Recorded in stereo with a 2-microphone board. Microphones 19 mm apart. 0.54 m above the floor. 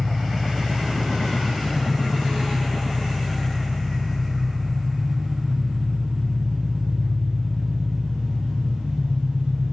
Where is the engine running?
50° right (ahead or behind), 4.5 m.